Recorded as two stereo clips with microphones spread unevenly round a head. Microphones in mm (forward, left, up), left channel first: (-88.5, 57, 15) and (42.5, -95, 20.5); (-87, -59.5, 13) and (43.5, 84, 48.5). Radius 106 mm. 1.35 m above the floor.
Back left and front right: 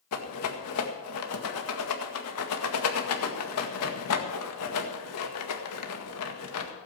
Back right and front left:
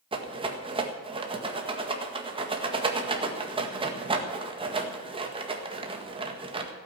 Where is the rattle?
115° left, 1.8 m.